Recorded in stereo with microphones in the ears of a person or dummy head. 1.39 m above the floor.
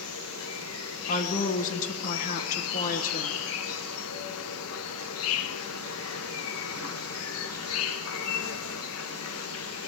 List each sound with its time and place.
0.0 s an insect: 75° left (ahead or behind), 0.9 m
1.1 s a woman speaking: 45° left (ahead or behind), 1.1 m